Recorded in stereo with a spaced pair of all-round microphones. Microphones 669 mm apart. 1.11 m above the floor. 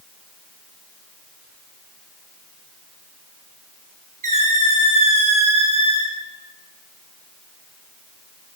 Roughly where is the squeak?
Right.